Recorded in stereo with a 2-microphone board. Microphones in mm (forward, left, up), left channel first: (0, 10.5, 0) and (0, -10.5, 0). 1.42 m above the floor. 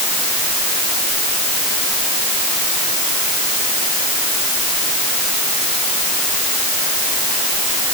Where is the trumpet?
No trumpet in this recording.